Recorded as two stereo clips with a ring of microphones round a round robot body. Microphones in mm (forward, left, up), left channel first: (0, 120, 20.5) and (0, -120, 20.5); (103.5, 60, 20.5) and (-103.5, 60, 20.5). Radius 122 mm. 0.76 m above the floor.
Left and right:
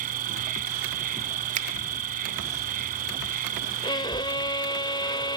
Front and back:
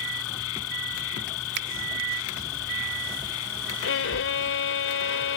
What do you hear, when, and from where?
0.0 s an insect: 35° right
1.6 s a finger snap: 145° right
3.8 s a violin: 20° left